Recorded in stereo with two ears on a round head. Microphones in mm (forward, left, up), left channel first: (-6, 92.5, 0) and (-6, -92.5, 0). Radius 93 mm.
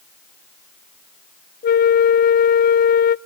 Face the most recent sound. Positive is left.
turn(degrees=45)  # may be behind; listen again after turning